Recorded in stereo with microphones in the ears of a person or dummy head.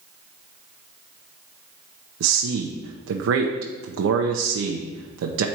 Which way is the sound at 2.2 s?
70° right (ahead or behind).